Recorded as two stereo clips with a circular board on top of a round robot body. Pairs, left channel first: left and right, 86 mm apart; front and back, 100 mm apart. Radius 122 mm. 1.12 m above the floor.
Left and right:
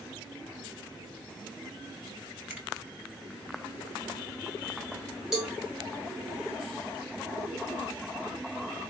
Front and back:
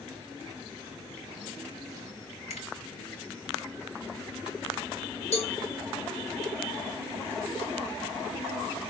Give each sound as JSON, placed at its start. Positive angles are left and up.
{"t": 2.5, "sound": "a finger snap", "azimuth_deg": -20, "distance_m": 3.0}
{"t": 5.3, "sound": "a cowbell", "azimuth_deg": -5, "distance_m": 1.9}